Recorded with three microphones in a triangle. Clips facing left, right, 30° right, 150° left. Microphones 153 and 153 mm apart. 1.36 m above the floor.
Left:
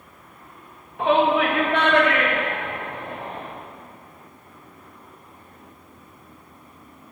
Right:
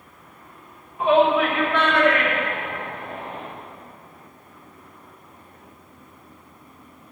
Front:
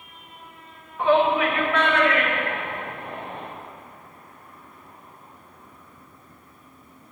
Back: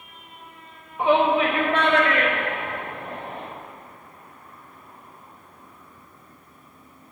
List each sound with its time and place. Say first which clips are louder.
1.0 s a shout: right 1 dB, even; 75° left, 1.4 m; by 3.4 s 105° left, 5 m